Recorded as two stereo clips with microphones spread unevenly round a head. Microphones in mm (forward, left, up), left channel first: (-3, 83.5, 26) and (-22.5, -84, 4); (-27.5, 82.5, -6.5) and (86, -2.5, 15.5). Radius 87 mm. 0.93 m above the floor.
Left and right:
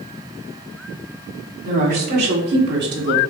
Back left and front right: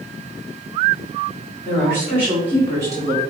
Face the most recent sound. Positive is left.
turn(degrees=-105)